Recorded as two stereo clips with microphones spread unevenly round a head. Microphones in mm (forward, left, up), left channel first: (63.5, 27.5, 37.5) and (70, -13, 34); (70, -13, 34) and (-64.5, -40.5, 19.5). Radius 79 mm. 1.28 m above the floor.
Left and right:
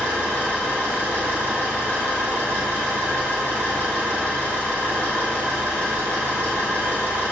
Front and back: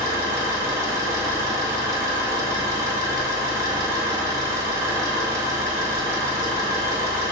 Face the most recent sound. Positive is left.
turn(degrees=-95)